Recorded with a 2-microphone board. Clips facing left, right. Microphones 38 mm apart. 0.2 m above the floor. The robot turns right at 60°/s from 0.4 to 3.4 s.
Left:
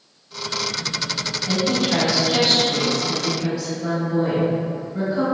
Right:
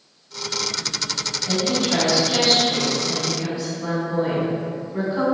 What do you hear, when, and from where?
1.5 s a woman speaking: 125° left, 1.4 m; by 5.2 s 120° right, 1.4 m